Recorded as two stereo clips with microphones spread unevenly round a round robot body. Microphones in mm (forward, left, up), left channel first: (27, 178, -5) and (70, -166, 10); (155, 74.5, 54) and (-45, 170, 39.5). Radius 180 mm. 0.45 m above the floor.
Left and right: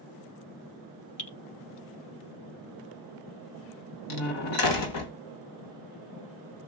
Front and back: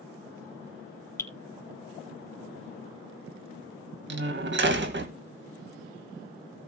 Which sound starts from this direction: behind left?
A door slam, at 4.1 s.